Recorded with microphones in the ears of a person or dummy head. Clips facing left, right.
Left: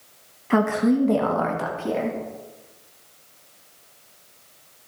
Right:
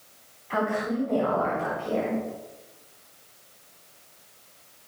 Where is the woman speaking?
55° left (ahead or behind), 1.3 m; by 2.2 s 85° left, 3 m.